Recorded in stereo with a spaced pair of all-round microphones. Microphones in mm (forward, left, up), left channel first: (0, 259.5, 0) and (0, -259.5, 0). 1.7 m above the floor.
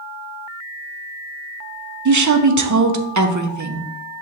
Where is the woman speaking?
35° right (ahead or behind), 0.5 m.